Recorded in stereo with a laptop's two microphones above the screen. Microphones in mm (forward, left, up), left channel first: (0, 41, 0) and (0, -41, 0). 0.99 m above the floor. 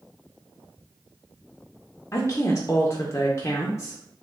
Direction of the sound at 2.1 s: 40° left (ahead or behind).